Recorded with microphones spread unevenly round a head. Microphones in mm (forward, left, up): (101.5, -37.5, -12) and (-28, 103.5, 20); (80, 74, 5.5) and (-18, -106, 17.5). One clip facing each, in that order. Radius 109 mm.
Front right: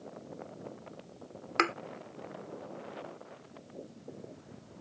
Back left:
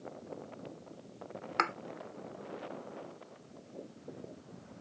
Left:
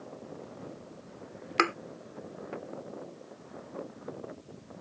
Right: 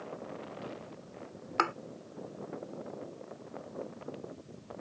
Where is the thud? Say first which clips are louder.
Front right 6 dB, left 5 dB; 5° left.